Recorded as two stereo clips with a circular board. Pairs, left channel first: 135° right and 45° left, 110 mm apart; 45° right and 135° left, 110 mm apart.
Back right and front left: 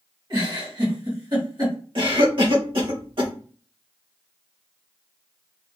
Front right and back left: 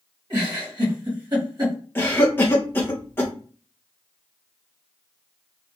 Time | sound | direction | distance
0.3 | a giggle | 90° left | 1.7 m
1.9 | a cough | 20° left | 1.3 m